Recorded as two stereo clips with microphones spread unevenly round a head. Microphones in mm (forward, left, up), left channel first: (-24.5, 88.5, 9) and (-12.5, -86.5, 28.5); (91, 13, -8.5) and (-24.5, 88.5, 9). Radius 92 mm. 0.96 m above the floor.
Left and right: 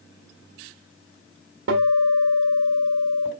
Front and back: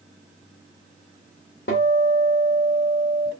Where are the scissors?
I don't hear scissors.